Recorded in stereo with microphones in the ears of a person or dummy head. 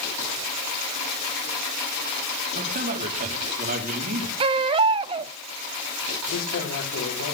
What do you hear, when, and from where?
2.5 s a man speaking: 50° right (ahead or behind), 3.5 m
4.4 s a baby crying: 30° right (ahead or behind), 0.9 m
6.3 s a man speaking: 85° left, 5 m